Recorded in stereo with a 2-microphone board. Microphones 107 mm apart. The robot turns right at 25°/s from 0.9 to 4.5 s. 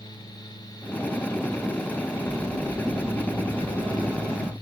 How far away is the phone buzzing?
About 2.5 m.